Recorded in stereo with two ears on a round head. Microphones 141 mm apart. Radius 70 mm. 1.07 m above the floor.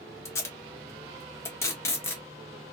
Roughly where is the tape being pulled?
Centre.